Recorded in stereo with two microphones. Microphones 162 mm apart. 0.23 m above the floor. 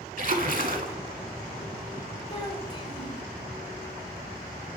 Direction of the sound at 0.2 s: 55° right (ahead or behind).